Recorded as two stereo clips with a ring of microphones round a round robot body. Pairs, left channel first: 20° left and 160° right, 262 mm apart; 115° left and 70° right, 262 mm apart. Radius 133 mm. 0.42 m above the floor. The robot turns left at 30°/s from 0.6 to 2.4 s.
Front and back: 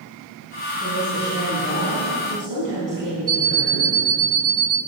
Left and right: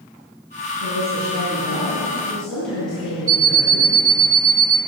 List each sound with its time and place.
0.8 s a woman speaking: 110° right, 3.5 m; by 3.9 s 160° right, 3.5 m
3.3 s an alarm clock: 90° right, 0.5 m